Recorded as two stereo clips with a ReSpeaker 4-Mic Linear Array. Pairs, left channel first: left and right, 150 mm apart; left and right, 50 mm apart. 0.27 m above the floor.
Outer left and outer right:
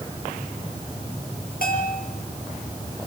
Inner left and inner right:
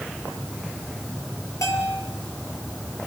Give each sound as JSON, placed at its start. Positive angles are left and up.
{"t": 1.6, "sound": "a bell", "side_deg": 80, "distance_m": 7.0}